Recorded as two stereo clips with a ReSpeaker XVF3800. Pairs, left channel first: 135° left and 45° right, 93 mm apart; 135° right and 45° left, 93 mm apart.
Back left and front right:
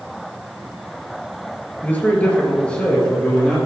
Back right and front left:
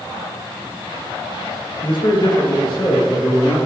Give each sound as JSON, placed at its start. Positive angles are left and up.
{"t": 1.8, "sound": "a man speaking", "azimuth_deg": -155, "distance_m": 2.5}